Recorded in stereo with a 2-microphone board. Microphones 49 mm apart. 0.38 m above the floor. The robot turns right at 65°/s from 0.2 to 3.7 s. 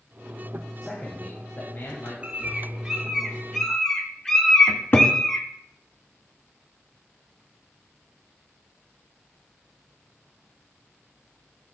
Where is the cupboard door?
50° left (ahead or behind), 1.3 m.